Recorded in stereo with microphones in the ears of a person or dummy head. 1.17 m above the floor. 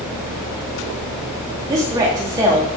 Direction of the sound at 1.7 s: 20° right (ahead or behind).